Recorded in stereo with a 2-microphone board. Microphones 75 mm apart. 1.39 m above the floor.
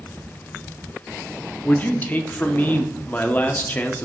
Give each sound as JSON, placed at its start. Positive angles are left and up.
{"t": 1.6, "sound": "a man speaking", "side_deg": 25, "distance_m": 0.7}